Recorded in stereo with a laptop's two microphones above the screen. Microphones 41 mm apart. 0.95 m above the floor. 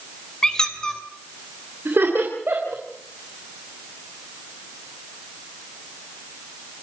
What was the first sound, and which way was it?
A squeak, 15° left (ahead or behind).